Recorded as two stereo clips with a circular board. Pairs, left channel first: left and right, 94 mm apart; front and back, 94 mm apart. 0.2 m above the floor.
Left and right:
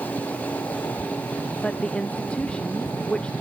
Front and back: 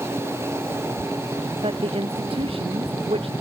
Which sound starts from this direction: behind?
A woman speaking, at 1.6 s.